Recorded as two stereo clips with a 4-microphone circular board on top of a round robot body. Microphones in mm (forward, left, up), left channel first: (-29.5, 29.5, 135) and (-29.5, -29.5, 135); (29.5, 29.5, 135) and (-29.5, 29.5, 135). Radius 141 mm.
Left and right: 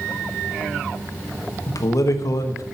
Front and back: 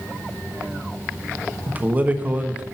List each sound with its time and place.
1.7 s a man speaking: 115° left, 1.4 m